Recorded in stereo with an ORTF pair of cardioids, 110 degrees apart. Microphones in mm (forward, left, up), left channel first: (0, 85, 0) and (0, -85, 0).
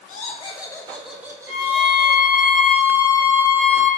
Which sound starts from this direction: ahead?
A violin, at 1.5 s.